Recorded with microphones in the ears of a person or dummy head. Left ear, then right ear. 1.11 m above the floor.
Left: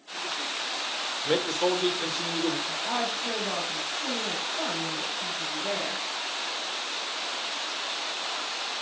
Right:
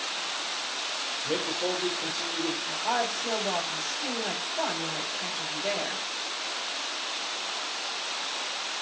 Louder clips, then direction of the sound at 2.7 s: Right 1 dB; 75° right (ahead or behind).